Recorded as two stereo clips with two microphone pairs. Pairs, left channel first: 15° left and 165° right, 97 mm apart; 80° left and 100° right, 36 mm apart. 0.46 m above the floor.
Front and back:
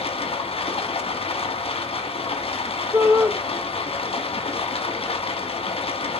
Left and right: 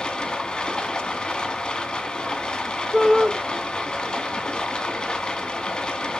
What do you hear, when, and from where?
0.0 s running water: 10° left, 1.4 m
2.9 s a shout: 165° right, 1.2 m